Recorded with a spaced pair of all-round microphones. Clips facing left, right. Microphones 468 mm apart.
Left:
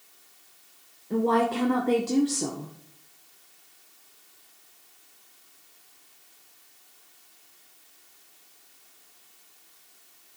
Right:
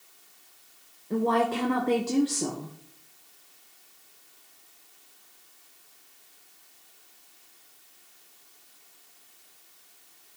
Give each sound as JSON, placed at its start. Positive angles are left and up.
{"t": 1.1, "sound": "a woman speaking", "side_deg": 0, "distance_m": 0.7}